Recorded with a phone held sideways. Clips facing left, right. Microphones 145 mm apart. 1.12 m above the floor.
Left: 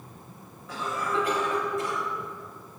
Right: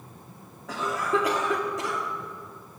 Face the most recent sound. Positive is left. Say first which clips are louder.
# right 4 dB
turn(degrees=-80)